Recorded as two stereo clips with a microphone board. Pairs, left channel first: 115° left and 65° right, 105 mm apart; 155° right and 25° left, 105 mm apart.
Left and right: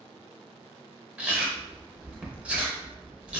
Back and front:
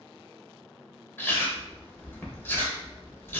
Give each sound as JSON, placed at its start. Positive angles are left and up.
{"t": 1.2, "sound": "chewing", "azimuth_deg": -130, "distance_m": 0.6}